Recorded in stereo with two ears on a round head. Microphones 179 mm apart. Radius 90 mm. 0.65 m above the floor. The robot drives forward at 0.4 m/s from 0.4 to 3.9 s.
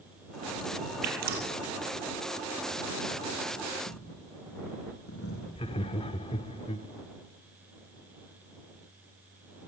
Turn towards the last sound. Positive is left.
turn(degrees=30)  # may be behind; listen again after turning